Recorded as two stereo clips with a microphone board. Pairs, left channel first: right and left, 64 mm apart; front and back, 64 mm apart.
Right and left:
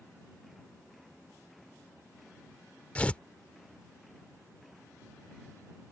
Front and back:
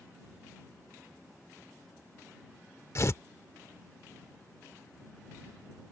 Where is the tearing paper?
25° right.